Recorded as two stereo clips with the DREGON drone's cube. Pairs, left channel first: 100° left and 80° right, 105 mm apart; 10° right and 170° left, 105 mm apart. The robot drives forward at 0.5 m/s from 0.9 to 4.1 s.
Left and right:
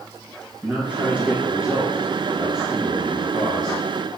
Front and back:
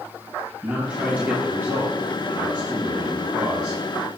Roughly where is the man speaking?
Behind right.